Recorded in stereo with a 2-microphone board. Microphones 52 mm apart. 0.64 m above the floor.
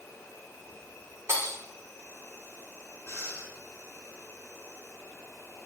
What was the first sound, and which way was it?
An insect, 80° left.